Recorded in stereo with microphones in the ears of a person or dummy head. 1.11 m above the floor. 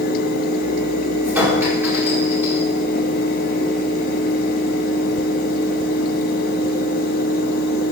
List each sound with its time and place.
1.2 s a clink: 10° right (ahead or behind), 2.5 m